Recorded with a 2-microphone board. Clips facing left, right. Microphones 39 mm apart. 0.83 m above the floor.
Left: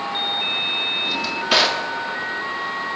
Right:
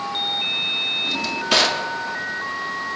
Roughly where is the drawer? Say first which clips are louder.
Left 1 dB; centre.